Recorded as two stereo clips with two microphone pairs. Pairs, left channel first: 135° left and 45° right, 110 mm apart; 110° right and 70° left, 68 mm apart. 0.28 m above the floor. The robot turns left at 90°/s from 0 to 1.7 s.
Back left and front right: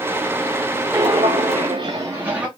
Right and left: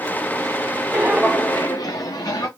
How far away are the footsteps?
About 1.1 m.